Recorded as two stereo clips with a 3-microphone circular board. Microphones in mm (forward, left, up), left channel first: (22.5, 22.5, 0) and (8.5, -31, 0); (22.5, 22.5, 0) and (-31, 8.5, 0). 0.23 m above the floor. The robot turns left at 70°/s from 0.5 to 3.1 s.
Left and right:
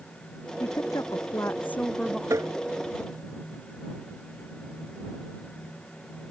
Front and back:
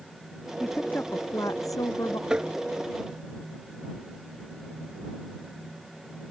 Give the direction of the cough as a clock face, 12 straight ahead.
No cough in this recording.